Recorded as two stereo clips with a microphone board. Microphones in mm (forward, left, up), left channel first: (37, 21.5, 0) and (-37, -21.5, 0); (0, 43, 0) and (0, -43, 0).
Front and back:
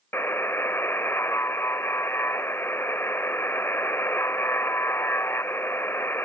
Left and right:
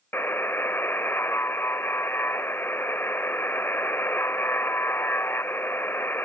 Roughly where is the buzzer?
Ahead left.